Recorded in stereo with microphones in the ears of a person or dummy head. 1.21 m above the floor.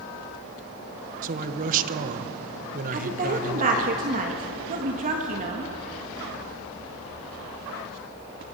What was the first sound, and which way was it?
A man speaking, 45° right (ahead or behind).